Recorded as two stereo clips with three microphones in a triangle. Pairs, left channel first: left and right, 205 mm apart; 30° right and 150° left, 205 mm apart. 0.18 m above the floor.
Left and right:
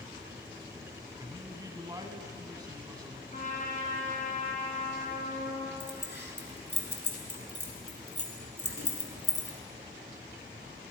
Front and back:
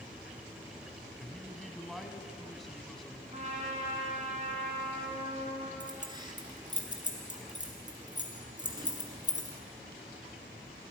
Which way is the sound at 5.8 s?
85° left.